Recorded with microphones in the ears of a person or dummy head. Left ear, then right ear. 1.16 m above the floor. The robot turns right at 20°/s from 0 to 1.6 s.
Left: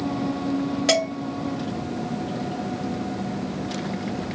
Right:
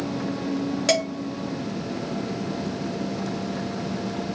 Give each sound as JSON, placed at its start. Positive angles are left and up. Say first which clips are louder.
{"t": 0.9, "sound": "dishes clattering", "louder": "left 1 dB", "side_deg": -15, "distance_m": 1.5}